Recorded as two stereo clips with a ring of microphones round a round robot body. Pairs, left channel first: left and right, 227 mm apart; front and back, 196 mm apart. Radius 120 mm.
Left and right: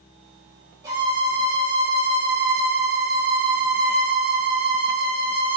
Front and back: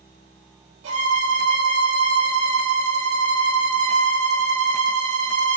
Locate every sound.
0.8 s a violin: 165° right, 3.5 m